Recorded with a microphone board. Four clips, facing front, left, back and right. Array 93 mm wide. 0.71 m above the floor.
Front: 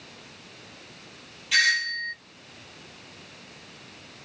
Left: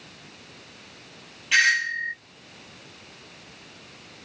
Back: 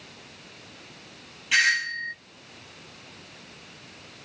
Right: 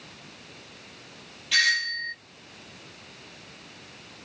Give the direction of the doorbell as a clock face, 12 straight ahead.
8 o'clock.